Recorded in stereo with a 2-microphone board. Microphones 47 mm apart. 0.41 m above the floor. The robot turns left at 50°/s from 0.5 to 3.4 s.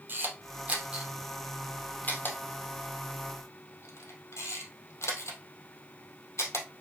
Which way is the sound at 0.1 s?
40° right (ahead or behind).